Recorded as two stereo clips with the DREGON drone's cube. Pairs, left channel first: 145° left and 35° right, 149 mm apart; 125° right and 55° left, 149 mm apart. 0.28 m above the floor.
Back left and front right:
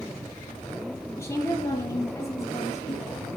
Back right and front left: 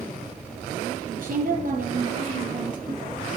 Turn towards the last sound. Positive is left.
turn(degrees=75)